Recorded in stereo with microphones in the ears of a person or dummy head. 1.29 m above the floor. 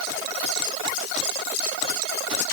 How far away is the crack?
No crack in this recording.